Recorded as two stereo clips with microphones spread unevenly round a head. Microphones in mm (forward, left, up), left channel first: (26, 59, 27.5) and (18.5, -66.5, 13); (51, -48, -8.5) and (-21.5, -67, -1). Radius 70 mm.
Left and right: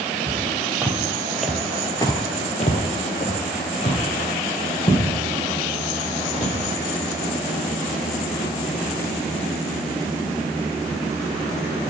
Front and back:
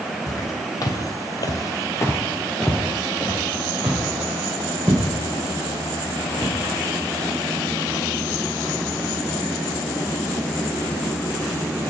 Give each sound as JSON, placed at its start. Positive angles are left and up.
{"t": 0.3, "sound": "footsteps", "azimuth_deg": -20, "distance_m": 3.0}